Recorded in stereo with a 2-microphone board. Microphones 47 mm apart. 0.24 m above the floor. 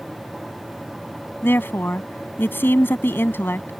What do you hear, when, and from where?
1.4 s a woman speaking: 55° left (ahead or behind)